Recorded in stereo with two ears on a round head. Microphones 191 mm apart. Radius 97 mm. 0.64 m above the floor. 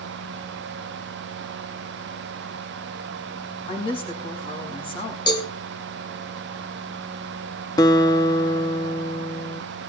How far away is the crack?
I don't hear a crack.